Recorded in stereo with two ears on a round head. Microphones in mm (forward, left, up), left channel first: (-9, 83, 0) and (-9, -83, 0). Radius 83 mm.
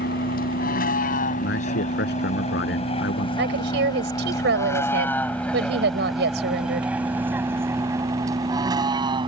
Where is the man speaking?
65° left (ahead or behind).